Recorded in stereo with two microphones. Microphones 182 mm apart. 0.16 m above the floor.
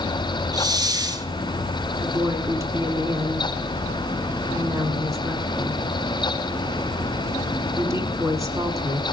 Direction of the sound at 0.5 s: 20° right (ahead or behind).